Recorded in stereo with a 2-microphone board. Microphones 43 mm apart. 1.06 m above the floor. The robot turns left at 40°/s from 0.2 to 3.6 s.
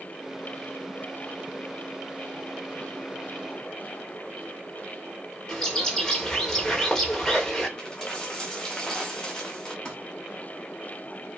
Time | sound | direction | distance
5.5 | a bird | 15° left (ahead or behind) | 5 m
7.8 | a dropped coin | 20° left (ahead or behind) | 5.5 m
9.8 | crumpling | 25° left (ahead or behind) | 6 m